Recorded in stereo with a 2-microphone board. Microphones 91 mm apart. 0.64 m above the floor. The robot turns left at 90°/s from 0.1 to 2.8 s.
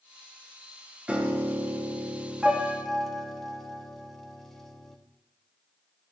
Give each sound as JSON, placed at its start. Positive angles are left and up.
{"t": 1.1, "sound": "a piano", "side_deg": -10, "distance_m": 1.2}